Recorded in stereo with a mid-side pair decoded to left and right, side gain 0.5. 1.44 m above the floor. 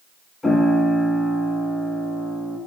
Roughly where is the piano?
Ahead left.